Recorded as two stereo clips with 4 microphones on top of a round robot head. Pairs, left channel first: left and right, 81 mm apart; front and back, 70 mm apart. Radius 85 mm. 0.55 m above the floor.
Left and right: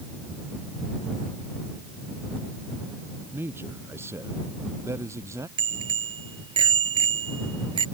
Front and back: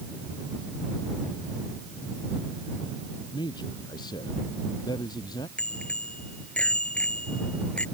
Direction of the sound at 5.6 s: 75° right.